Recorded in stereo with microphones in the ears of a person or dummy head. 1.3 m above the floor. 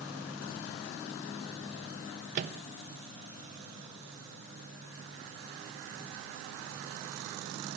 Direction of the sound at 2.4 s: 50° right (ahead or behind).